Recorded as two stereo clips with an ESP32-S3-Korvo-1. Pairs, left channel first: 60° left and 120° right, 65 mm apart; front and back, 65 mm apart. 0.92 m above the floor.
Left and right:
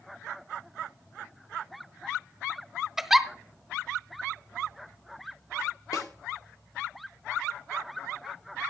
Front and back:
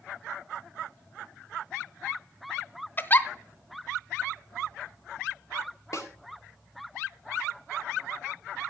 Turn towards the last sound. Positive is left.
turn(degrees=40)